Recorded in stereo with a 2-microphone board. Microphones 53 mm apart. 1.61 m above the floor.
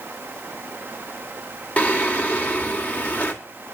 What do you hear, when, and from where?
1.8 s singing: 25° left (ahead or behind), 1.8 m